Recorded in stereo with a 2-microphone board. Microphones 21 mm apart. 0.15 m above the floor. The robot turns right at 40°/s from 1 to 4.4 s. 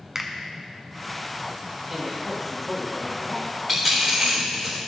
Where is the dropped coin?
20° right (ahead or behind), 3 m; by 4.8 s 50° right (ahead or behind), 3 m.